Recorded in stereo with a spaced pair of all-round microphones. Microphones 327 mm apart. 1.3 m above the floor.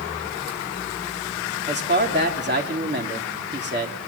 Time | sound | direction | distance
1.7 | a man speaking | 35° right (ahead or behind) | 3 m